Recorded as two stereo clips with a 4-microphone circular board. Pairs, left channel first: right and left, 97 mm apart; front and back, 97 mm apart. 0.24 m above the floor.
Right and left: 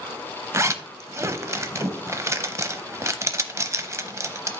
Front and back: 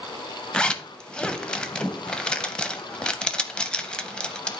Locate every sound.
0.5 s a zipper: 70° left, 0.6 m